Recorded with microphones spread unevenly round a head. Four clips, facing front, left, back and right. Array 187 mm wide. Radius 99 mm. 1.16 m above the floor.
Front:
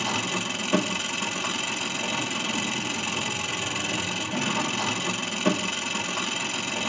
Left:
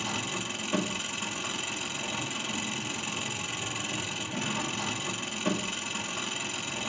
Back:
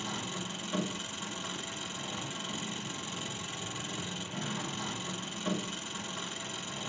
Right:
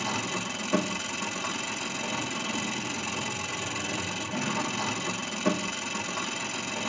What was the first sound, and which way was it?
An engine running, 15° right.